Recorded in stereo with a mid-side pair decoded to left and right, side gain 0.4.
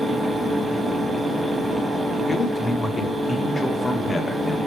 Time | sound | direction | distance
0.0 | a fan | 35° right | 1.0 m
2.3 | a man speaking | 25° left | 0.7 m